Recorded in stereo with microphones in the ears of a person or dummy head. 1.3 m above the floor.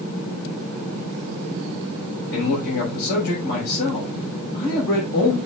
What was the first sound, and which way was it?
A man speaking, 65° left (ahead or behind).